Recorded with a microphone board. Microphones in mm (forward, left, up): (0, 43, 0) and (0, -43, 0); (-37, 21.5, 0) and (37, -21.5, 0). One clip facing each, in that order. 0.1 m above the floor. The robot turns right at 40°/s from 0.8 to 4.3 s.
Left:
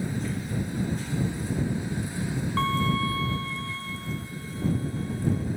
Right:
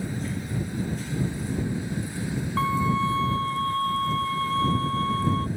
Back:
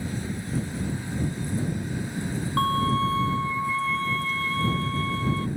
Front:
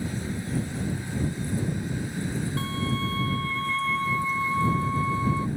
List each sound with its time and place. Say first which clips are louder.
2.6 s a violin: right 2 dB, back 11 dB; 175° right; by 5.5 s 105° right